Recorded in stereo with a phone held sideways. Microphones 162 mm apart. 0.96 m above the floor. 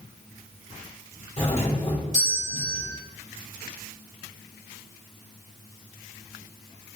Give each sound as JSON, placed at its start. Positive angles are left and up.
{"t": 1.4, "sound": "a doorbell", "side_deg": 45, "distance_m": 3.5}